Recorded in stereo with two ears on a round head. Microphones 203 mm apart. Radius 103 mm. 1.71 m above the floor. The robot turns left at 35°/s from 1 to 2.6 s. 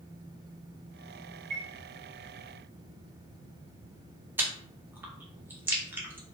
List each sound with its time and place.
1.5 s a chime: 40° right (ahead or behind), 1.1 m
4.4 s chewing: 10° right (ahead or behind), 0.6 m